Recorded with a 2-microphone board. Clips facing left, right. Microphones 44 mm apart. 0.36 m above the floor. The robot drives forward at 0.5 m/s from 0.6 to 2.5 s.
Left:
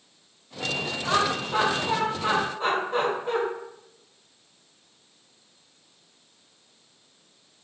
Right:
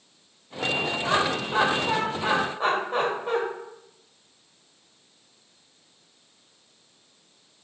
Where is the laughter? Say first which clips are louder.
Left 2 dB; 25° right (ahead or behind), 1.1 m; by 3.4 s 20° right (ahead or behind), 1.5 m.